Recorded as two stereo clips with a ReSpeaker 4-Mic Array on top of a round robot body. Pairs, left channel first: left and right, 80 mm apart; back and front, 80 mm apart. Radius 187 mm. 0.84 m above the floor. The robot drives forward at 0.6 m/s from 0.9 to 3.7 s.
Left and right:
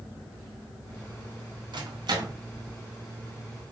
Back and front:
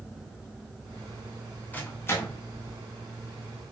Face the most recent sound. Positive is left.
turn(degrees=-145)